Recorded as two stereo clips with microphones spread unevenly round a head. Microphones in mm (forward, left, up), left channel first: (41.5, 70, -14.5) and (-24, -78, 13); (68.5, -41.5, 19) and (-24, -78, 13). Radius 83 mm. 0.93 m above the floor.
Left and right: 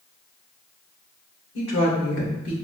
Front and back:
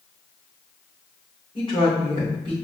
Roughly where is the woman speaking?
Left.